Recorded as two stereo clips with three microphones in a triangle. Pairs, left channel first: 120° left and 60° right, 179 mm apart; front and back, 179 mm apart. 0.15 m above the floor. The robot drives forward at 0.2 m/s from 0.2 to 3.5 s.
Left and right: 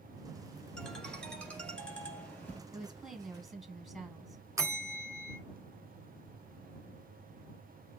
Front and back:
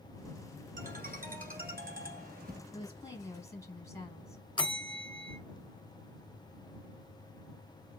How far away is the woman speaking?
About 1.1 m.